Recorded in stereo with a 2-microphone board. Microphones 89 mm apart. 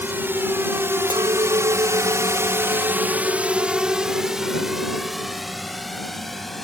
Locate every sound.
0.0 s a drone: 25° right (ahead or behind); by 6.6 s centre (ahead or behind)
1.1 s a clink: 75° right (ahead or behind)